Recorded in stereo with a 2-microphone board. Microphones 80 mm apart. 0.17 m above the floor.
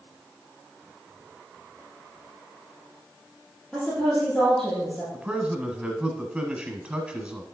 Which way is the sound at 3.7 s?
Centre (ahead or behind).